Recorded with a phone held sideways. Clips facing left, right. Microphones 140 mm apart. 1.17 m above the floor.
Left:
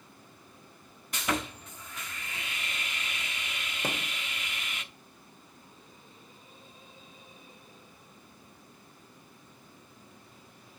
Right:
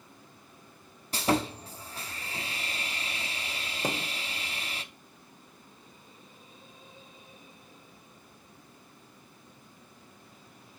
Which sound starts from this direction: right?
Sawing, at 1.1 s.